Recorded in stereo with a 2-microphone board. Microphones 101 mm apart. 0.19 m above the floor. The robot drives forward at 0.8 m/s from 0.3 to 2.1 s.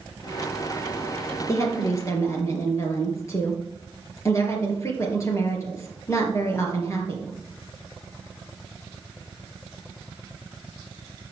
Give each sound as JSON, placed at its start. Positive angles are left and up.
{"t": 1.5, "sound": "a woman speaking", "side_deg": 35, "distance_m": 3.5}